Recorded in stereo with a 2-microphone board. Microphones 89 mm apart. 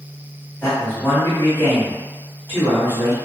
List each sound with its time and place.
0.6 s a man speaking: 25° left (ahead or behind), 1.6 m